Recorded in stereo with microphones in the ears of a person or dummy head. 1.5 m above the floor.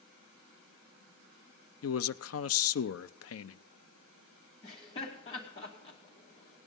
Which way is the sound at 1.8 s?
70° left (ahead or behind).